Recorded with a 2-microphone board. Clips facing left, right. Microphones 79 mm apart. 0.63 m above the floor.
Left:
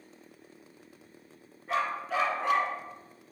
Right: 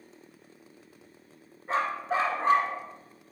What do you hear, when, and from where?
1.7 s a dog barking: 30° right (ahead or behind), 1.9 m; by 2.8 s 35° right (ahead or behind), 1.4 m